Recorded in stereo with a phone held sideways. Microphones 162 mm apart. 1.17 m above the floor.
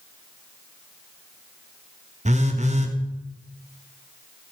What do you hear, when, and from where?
2.2 s a phone buzzing: 45° right (ahead or behind), 1.3 m